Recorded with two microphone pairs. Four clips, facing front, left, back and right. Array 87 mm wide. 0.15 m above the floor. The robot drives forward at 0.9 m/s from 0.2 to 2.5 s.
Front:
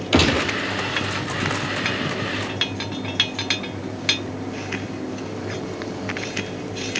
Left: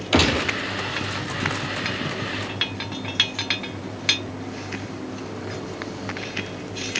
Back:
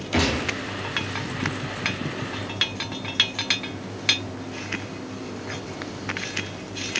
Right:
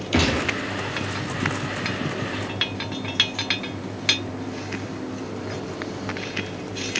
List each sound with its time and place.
0.1 s a gunshot: 65° left, 1.0 m; by 0.5 s 75° left, 1.0 m